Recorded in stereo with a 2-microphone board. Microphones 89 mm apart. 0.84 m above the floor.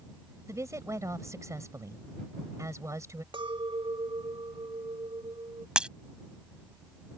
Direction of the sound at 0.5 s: 35° right (ahead or behind).